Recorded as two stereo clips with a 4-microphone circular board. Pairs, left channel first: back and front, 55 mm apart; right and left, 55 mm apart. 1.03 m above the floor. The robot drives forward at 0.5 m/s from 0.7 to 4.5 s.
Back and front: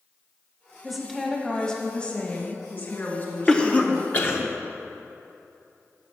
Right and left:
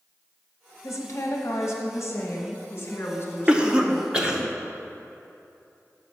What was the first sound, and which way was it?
A woman speaking, 85° right.